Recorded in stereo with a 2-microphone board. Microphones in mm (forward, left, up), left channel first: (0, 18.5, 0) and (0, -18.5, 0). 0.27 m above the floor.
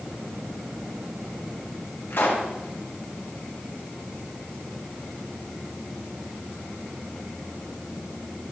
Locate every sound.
2.1 s a pop: 65° left (ahead or behind), 3 m